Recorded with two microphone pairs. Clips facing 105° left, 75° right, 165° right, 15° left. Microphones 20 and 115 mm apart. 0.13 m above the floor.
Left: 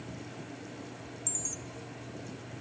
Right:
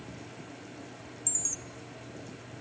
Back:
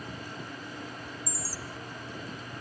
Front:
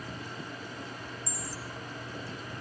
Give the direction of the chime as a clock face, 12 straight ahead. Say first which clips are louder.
Right 4 dB, back 1 dB; 3 o'clock.